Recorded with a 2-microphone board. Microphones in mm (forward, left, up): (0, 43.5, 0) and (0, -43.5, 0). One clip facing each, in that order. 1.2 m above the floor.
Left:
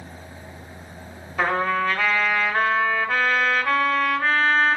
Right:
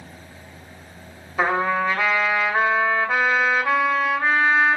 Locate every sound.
1.4 s a trumpet: 15° right (ahead or behind), 2.5 m